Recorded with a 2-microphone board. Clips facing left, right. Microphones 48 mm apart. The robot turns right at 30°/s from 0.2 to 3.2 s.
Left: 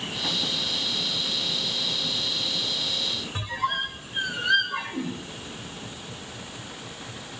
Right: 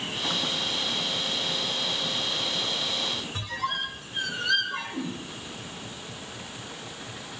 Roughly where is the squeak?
Centre.